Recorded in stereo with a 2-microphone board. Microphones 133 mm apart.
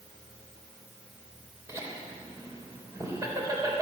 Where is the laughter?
20° right (ahead or behind), 3.5 m.